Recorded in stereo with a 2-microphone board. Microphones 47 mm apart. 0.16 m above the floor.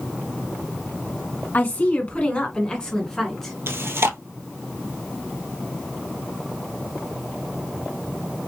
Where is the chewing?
60° right (ahead or behind), 1.2 m.